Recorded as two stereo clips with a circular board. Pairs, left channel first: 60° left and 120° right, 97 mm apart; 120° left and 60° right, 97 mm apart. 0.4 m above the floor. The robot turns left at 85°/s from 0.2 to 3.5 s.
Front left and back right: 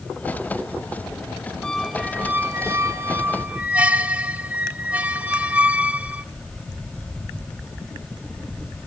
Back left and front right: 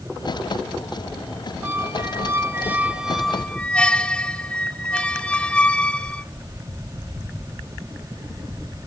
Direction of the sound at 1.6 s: 15° right.